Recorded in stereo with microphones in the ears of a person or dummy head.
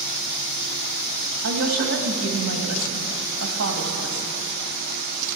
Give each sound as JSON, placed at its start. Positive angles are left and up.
{"t": 1.4, "sound": "a woman speaking", "side_deg": -70, "distance_m": 1.8}